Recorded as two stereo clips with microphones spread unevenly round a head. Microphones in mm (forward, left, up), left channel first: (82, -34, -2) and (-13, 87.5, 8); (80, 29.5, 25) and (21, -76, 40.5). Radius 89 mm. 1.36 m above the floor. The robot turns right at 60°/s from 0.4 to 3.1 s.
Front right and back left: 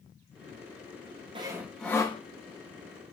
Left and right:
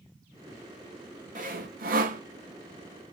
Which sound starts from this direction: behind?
Sawing, at 1.4 s.